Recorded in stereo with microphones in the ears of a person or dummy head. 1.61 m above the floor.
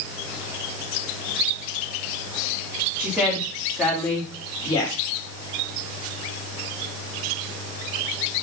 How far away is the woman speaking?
About 4.5 m.